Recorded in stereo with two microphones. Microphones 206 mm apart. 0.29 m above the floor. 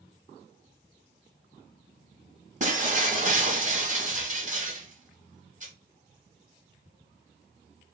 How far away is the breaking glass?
About 0.7 m.